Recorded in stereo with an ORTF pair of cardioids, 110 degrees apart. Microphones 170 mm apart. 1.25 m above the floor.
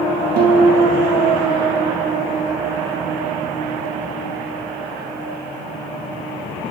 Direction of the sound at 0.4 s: 60° right.